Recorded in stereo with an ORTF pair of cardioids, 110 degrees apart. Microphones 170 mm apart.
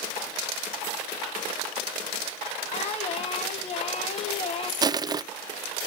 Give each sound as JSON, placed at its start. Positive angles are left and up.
{"t": 2.7, "sound": "singing", "azimuth_deg": 40, "distance_m": 2.5}
{"t": 4.8, "sound": "crushing", "azimuth_deg": -25, "distance_m": 0.5}